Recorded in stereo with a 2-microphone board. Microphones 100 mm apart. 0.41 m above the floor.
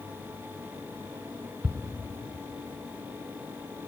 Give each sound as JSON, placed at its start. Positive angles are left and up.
{"t": 1.6, "sound": "ticking", "side_deg": -5, "distance_m": 1.3}